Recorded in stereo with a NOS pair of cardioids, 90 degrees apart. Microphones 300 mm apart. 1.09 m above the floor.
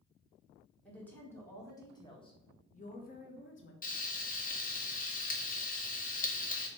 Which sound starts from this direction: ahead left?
Frying, at 3.8 s.